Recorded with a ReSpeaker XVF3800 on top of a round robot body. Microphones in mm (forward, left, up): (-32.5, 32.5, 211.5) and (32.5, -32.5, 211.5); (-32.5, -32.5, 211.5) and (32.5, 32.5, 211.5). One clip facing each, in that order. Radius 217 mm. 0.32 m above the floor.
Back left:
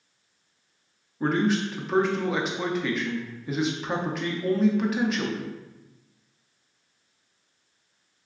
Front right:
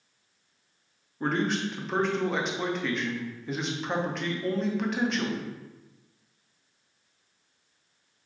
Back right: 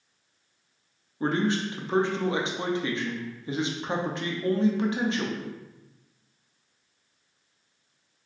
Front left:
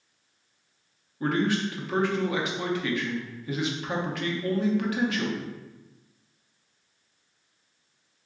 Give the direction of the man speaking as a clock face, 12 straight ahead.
5 o'clock.